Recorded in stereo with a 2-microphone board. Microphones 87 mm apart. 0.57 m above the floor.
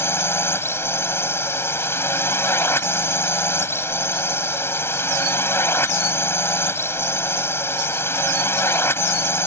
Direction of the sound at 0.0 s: 30° left (ahead or behind).